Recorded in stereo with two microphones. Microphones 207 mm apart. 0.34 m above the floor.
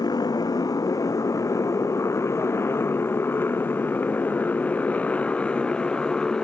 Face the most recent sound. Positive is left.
turn(degrees=5)  # may be behind; listen again after turning